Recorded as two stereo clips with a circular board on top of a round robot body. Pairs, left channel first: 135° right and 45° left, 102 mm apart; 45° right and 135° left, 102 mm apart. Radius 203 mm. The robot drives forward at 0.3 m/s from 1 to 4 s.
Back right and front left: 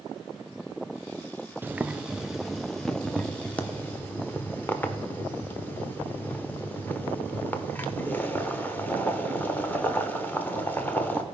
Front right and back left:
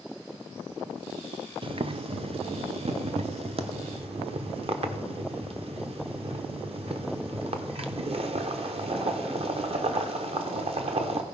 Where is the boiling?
115° left, 0.7 m; by 11.2 s 155° left, 1.1 m.